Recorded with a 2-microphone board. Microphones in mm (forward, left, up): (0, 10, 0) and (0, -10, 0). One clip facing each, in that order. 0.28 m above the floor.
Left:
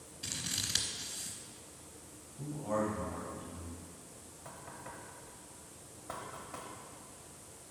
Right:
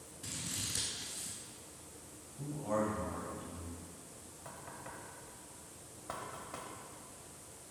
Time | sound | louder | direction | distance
0.2 | scissors | left 4 dB | 60° left (ahead or behind) | 0.9 m
2.4 | a man speaking | left 1 dB | 5° right (ahead or behind) | 1.3 m
4.5 | knocking | even | 20° right (ahead or behind) | 0.9 m